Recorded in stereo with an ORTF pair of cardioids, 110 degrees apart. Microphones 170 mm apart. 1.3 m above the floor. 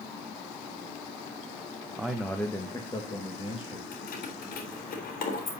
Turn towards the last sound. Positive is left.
turn(degrees=60)